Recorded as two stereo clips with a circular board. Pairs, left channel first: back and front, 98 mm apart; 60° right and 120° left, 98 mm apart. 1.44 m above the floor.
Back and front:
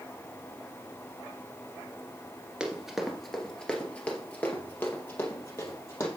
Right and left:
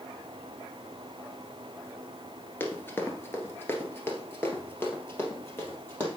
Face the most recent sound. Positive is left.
turn(degrees=-125)